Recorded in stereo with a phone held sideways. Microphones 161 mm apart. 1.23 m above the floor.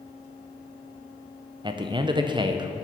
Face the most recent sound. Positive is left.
turn(degrees=-30)  # may be behind; listen again after turning